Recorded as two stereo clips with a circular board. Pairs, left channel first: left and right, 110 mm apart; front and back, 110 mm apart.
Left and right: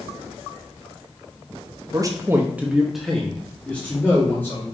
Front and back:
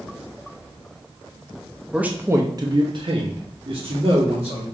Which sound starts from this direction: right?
A man speaking, at 1.9 s.